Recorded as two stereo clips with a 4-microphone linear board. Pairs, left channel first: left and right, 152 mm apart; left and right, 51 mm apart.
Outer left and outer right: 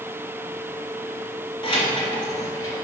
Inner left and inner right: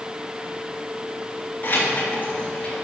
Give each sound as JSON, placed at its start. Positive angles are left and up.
{"t": 1.6, "sound": "keys jangling", "side_deg": 35, "distance_m": 2.5}